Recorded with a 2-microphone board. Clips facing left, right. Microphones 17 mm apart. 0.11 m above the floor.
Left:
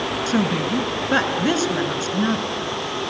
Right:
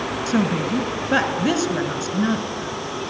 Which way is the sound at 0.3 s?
10° left (ahead or behind).